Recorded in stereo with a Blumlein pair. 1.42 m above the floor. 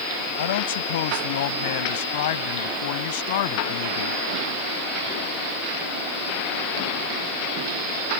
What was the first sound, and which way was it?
A man speaking, 55° left.